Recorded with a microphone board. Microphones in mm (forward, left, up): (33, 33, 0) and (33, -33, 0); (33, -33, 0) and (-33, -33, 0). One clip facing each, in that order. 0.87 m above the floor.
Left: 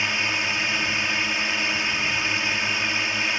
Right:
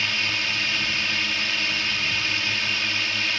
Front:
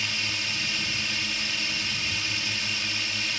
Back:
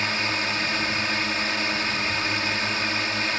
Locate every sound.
0.0 s a drone: 155° left